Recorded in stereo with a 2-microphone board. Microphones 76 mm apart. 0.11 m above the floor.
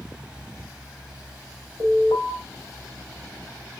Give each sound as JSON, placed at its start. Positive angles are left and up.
{"t": 1.8, "sound": "an alarm", "side_deg": 35, "distance_m": 5.5}